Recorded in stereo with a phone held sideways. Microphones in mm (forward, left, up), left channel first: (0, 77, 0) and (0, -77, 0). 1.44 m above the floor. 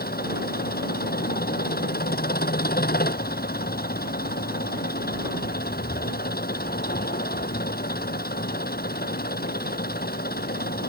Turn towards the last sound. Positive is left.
turn(degrees=85)